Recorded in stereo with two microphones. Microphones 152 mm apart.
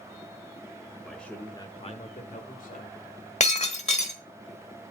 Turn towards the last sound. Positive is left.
turn(degrees=45)  # may be behind; listen again after turning